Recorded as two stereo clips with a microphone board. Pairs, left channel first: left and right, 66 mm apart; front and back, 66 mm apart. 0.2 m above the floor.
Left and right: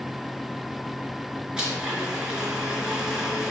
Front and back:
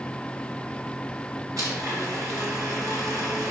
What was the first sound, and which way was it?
A blender, 165° right.